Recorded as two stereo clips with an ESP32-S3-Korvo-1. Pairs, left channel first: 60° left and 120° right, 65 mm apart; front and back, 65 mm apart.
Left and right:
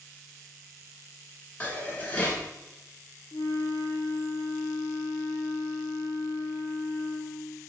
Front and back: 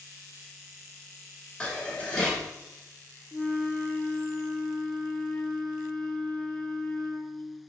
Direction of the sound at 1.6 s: 40° left.